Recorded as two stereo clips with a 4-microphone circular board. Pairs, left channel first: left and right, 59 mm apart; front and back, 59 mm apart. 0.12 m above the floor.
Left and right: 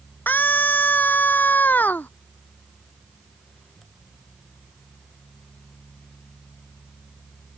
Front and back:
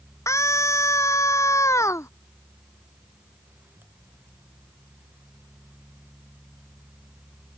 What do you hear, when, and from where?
0.3 s a scream: 30° left